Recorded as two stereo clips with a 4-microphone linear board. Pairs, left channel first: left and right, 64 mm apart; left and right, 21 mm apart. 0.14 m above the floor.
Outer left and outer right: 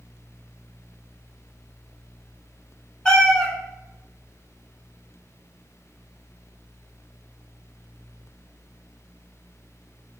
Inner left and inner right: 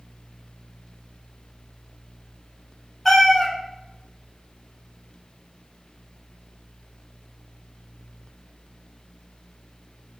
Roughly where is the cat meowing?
Centre.